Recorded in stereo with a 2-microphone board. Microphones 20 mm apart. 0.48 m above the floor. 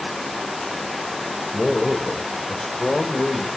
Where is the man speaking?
15° left (ahead or behind), 2 m; by 3.5 s 60° left (ahead or behind), 2.5 m.